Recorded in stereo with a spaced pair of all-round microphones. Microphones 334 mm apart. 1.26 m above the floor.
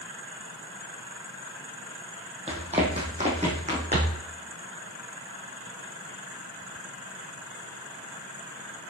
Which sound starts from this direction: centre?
Running footsteps, at 2.5 s.